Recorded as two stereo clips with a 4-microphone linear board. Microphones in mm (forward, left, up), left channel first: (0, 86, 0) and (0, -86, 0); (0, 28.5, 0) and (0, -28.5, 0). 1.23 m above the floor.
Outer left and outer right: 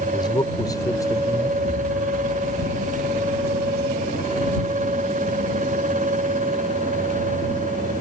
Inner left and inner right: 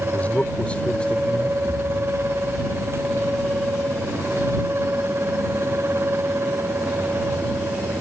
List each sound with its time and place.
0.1 s a man speaking: 25° left (ahead or behind); by 1.5 s 15° left (ahead or behind)
1.6 s an explosion: 60° left (ahead or behind)